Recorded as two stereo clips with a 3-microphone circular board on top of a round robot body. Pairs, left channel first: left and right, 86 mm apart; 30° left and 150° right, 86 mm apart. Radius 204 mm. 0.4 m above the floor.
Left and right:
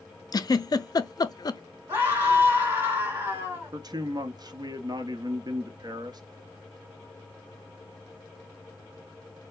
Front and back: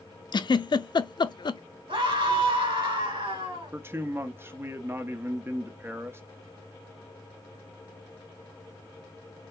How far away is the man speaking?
About 1.0 m.